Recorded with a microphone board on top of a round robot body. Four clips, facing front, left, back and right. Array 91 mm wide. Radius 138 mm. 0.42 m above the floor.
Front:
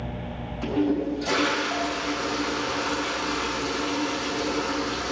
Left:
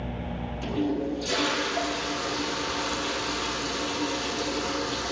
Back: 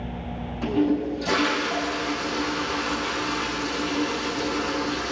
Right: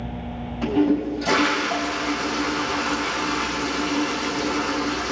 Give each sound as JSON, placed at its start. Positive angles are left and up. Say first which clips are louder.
{"t": 0.6, "sound": "a toilet flushing", "louder": "right 8 dB, back 2 dB", "azimuth_deg": -90, "distance_m": 5.0}